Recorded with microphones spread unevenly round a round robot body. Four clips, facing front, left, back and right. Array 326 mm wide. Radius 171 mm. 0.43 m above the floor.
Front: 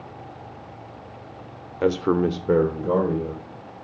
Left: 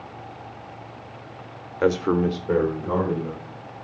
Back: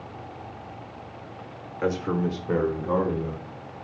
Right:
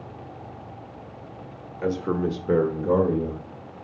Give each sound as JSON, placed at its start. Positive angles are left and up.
{"t": 1.8, "sound": "a man speaking", "azimuth_deg": 60, "distance_m": 1.2}